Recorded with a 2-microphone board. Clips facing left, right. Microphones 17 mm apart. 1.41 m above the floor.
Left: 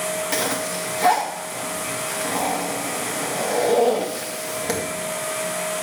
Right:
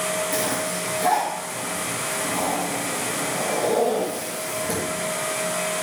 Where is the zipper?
75° left (ahead or behind), 2.5 m.